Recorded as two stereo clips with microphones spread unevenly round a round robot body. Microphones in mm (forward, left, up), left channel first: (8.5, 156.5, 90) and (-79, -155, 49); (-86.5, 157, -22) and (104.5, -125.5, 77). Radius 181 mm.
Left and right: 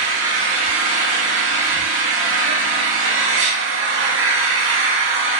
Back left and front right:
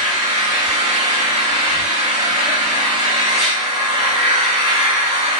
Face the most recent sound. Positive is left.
turn(degrees=-140)